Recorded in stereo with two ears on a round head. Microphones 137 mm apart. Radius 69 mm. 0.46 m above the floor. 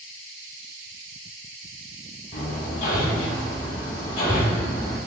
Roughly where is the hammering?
Left.